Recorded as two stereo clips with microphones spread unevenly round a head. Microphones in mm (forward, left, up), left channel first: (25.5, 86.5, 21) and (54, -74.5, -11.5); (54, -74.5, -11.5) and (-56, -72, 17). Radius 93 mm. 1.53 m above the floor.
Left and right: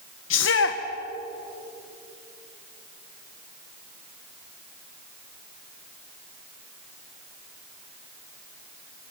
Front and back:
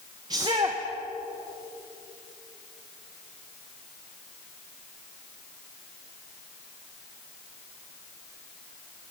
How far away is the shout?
About 1.2 m.